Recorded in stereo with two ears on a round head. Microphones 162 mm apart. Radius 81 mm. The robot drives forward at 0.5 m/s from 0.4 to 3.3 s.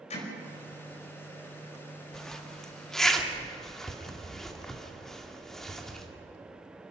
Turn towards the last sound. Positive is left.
turn(degrees=0)  # may be behind; listen again after turning